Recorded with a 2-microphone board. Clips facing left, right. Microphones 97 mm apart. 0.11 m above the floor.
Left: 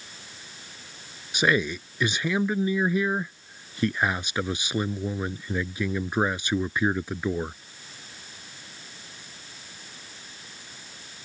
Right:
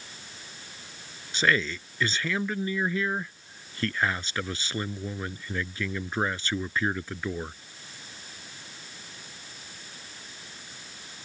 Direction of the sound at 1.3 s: 20° left (ahead or behind).